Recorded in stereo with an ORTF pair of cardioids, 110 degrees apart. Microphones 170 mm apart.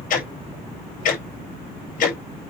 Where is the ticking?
50° left, 6 m.